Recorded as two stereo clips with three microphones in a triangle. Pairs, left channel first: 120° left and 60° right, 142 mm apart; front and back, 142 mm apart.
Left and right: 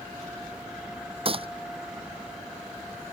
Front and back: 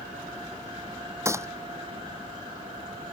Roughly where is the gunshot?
Right.